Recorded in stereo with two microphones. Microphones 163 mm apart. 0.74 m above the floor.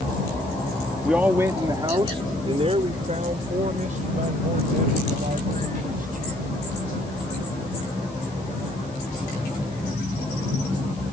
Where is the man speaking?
5° right (ahead or behind); by 6.5 s 55° right (ahead or behind).